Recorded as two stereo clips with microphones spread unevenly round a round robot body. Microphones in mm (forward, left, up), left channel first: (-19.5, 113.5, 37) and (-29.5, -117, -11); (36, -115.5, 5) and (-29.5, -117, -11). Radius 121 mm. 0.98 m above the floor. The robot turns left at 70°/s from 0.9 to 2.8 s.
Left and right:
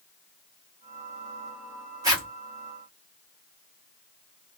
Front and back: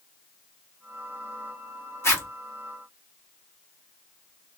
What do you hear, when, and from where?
2.0 s a zipper: 40° right, 1.0 m; by 2.3 s 60° right, 1.0 m